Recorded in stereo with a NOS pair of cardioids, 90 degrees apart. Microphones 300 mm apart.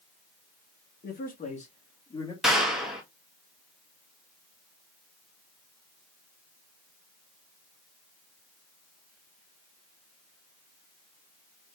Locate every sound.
1.0 s a man speaking: 35° left, 2 m; by 2.3 s 15° left, 3 m
2.4 s a clap: straight ahead, 2 m